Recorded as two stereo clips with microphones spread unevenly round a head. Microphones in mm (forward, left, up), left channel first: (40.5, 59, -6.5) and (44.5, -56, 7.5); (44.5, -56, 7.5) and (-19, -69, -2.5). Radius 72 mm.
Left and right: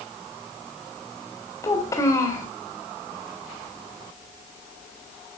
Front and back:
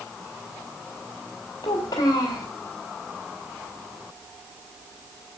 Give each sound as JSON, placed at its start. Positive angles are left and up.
{"t": 1.6, "sound": "a child speaking", "azimuth_deg": 30, "distance_m": 3.5}